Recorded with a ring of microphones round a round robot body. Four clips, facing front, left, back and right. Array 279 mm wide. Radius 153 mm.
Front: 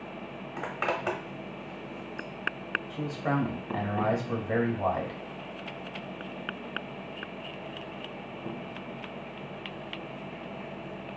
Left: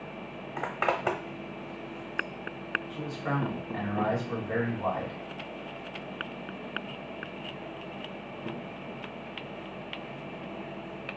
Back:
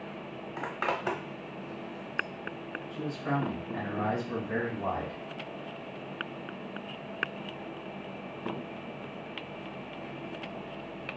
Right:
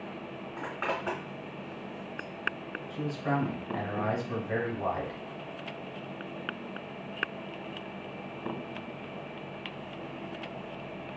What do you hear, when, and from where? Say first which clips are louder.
0.6 s a zipper: left 5 dB, front 1 dB; 80° left, 1.0 m
2.9 s a man speaking: right 4 dB, front 2 dB; straight ahead, 2.5 m